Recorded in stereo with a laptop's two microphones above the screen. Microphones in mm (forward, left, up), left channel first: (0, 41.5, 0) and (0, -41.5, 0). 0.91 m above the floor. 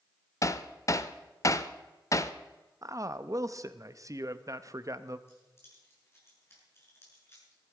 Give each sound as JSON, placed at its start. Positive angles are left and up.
{"t": 0.4, "sound": "hammering", "side_deg": 40, "distance_m": 0.6}
{"t": 2.8, "sound": "a man speaking", "side_deg": -40, "distance_m": 0.9}
{"t": 5.3, "sound": "keys jangling", "side_deg": 30, "distance_m": 7.0}